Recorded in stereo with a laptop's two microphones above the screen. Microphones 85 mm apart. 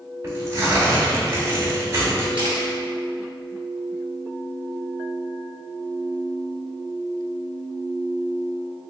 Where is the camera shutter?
70° right (ahead or behind), 1.0 m.